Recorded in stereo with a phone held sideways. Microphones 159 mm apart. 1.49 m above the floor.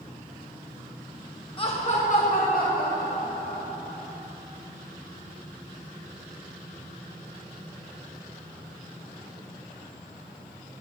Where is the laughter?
35° left (ahead or behind), 1.3 m; by 4.1 s 75° left (ahead or behind), 3.5 m.